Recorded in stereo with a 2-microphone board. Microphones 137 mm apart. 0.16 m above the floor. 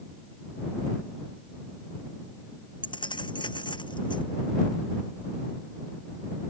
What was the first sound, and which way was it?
Keys jangling, 35° left (ahead or behind).